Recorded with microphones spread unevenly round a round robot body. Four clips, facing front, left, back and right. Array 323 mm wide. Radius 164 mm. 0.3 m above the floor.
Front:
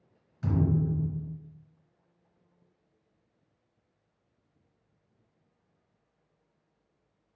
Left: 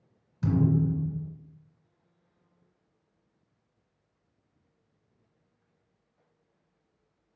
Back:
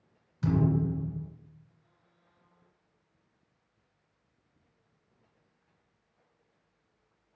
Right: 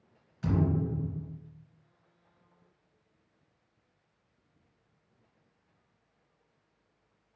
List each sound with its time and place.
0.4 s a thud: 110° left, 2.5 m